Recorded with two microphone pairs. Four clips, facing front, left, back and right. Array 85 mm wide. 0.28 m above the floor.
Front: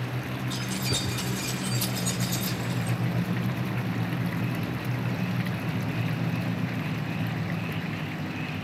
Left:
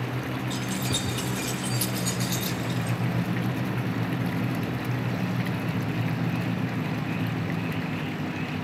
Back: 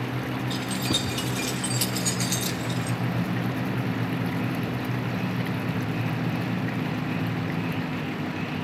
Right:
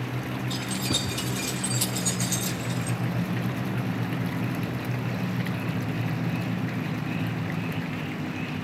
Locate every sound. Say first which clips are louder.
0.5 s keys jangling: even, back 3 dB; 165° right, 5 m; by 3.0 s 155° left, 2 m